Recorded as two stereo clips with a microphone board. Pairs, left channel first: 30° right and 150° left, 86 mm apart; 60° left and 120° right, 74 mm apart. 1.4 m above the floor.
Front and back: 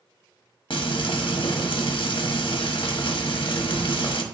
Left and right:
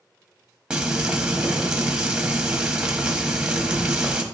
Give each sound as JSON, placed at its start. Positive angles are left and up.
{"t": 0.7, "sound": "frying", "azimuth_deg": -40, "distance_m": 1.0}